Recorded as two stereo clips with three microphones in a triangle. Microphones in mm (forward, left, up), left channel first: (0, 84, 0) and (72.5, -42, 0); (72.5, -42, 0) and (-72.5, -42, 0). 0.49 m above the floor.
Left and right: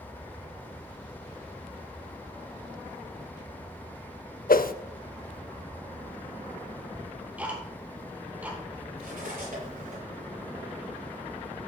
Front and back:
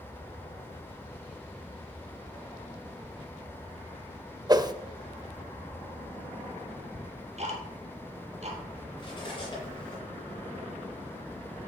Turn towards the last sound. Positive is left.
turn(degrees=-55)